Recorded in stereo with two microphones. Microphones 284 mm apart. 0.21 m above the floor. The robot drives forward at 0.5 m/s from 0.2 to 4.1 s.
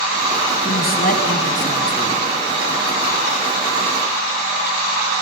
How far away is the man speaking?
About 1.3 m.